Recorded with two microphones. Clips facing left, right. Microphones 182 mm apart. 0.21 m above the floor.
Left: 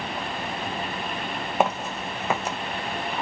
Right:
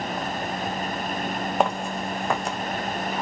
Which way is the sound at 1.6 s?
5° left (ahead or behind).